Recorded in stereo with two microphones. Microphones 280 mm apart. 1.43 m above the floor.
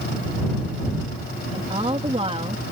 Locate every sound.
1.5 s a woman speaking: 20° right (ahead or behind)